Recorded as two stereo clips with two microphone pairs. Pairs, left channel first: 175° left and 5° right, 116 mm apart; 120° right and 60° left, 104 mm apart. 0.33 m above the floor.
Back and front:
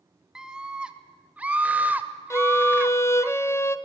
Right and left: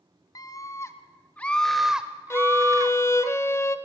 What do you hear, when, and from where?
0.3 s a scream: 85° right, 1.6 m; by 3.3 s 60° left, 1.4 m
2.3 s a violin: 145° right, 0.9 m